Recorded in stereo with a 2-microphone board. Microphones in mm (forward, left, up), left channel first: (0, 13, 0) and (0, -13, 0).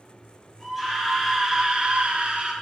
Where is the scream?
Centre (ahead or behind), 1.7 m; by 2.5 s 40° right (ahead or behind), 1.2 m.